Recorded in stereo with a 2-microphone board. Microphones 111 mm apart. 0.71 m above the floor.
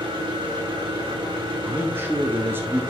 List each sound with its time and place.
0.0 s an engine running: 45° right (ahead or behind), 1.7 m
1.6 s a man speaking: 20° right (ahead or behind), 0.6 m